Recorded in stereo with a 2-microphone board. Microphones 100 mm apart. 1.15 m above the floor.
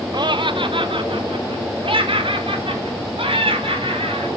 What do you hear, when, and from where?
0.1 s laughter: 50° right (ahead or behind), 0.9 m; by 4.3 s 65° right (ahead or behind), 6 m